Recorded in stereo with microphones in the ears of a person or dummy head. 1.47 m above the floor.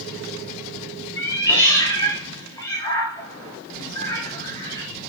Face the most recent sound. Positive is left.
turn(degrees=20)  # may be behind; listen again after turning